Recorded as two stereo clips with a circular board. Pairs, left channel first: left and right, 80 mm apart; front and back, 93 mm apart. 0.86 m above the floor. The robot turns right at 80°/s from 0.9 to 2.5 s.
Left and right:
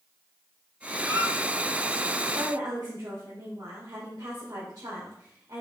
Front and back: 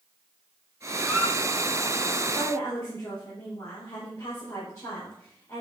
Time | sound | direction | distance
1.0 | a squeak | 120° right | 4.5 m
2.3 | a woman speaking | 65° right | 3.5 m